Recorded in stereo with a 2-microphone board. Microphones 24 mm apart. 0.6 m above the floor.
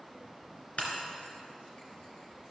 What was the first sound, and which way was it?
Breaking glass, 60° left (ahead or behind).